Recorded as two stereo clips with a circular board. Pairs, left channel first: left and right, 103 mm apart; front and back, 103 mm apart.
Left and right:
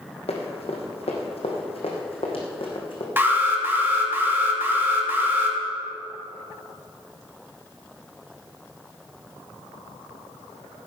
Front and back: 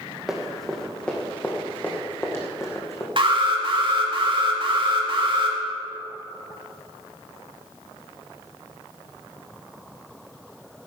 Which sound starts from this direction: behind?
An alarm, at 3.2 s.